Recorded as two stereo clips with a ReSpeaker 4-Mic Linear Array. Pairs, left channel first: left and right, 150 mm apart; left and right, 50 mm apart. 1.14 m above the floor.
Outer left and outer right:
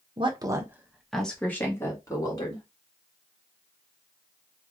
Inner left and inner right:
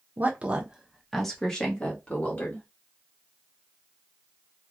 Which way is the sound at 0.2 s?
35° right (ahead or behind).